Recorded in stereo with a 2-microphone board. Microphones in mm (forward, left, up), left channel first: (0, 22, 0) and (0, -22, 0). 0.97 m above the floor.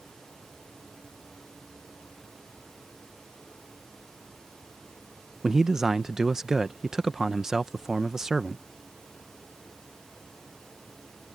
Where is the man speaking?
10° right (ahead or behind).